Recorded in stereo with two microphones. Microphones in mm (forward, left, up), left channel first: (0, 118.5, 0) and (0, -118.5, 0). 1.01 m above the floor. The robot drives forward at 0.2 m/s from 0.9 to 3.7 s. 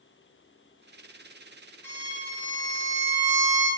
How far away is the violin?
About 0.8 m.